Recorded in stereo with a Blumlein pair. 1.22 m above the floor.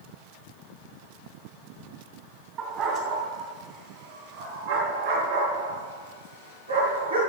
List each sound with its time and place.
2.6 s a dog barking: 35° right, 3 m; by 7.2 s 75° right, 5 m